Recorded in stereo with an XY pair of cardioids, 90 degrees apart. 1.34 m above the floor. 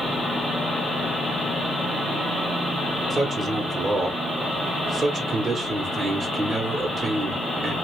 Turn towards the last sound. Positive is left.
turn(degrees=-40)